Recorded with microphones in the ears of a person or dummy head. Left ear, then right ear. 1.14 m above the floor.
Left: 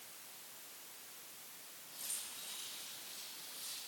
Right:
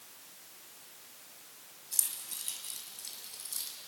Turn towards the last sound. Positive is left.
turn(degrees=-80)